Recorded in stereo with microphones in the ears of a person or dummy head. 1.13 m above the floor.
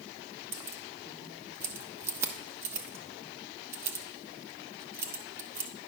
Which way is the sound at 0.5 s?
20° right (ahead or behind).